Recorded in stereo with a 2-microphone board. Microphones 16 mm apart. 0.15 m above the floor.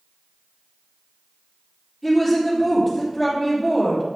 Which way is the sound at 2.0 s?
5° right (ahead or behind).